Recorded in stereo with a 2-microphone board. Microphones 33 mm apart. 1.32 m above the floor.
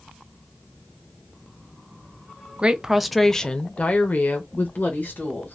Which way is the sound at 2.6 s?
30° right (ahead or behind).